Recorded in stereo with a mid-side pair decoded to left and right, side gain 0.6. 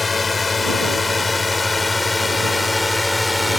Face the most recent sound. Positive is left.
turn(degrees=10)